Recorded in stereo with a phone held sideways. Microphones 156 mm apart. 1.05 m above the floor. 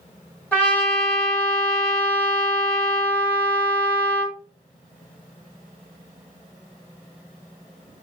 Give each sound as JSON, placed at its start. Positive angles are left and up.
{"t": 0.5, "sound": "a trumpet", "side_deg": 10, "distance_m": 1.5}